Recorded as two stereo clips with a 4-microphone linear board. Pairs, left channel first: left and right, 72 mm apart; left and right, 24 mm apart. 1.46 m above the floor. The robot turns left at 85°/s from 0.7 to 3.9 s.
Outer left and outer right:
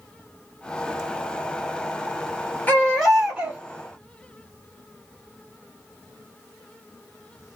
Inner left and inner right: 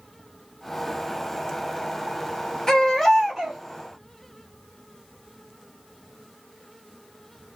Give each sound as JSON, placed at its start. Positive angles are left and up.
{"t": 2.7, "sound": "a baby crying", "azimuth_deg": 40, "distance_m": 1.2}